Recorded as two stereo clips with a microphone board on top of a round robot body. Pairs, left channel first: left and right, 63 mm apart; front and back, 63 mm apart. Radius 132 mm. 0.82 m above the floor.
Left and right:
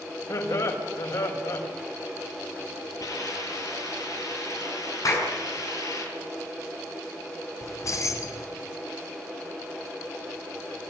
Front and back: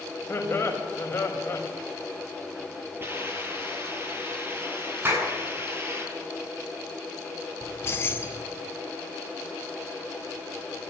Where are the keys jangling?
55° left, 2.5 m.